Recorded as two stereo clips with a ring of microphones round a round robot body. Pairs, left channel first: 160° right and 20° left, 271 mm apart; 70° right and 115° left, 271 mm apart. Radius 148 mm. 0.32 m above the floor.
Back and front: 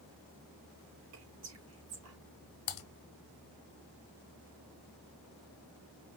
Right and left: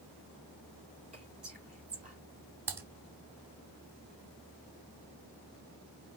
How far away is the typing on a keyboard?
About 1.0 m.